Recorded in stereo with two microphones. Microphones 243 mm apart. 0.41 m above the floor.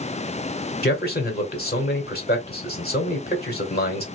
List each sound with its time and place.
0.8 s a man speaking: 40° left (ahead or behind), 1.4 m